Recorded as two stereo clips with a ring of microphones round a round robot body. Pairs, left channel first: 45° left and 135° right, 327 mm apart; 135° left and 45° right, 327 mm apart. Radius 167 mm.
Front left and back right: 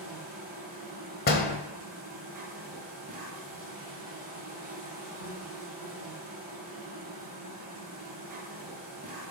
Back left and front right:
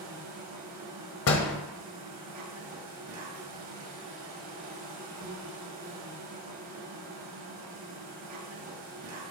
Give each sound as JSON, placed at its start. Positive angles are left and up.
{"t": 0.0, "sound": "an insect", "azimuth_deg": -75, "distance_m": 1.8}
{"t": 1.3, "sound": "a door slam", "azimuth_deg": 100, "distance_m": 1.2}